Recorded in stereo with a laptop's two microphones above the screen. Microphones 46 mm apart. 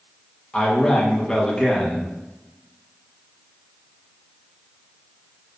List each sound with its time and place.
0.5 s a man speaking: 10° left (ahead or behind), 0.7 m